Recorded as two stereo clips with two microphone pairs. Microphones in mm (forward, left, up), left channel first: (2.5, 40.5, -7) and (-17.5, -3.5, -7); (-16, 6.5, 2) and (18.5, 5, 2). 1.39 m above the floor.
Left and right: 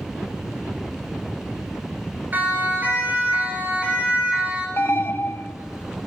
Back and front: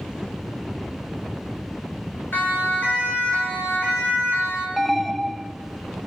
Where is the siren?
165° right, 6.5 m; by 4.7 s 175° left, 7 m.